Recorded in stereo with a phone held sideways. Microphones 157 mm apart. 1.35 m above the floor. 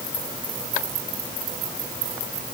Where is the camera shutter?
I don't hear a camera shutter.